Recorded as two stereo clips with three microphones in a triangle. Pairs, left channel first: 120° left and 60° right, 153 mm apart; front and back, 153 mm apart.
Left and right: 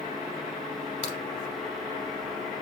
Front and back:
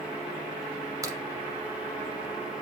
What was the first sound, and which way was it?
A crack, 120° left.